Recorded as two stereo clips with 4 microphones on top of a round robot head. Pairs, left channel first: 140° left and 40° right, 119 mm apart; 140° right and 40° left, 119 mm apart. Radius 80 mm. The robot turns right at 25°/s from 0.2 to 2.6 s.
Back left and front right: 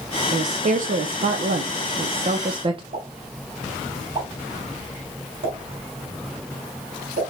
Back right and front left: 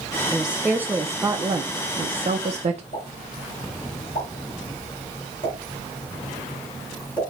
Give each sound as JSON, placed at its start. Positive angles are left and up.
{"t": 0.3, "sound": "a woman speaking", "azimuth_deg": -50, "distance_m": 0.5}
{"t": 2.9, "sound": "a pop", "azimuth_deg": -90, "distance_m": 2.5}